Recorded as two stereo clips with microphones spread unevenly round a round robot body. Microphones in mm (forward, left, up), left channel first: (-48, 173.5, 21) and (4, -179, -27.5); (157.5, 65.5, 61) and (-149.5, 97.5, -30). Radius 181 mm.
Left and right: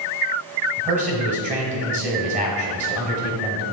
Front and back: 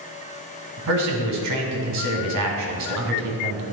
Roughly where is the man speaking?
Behind right.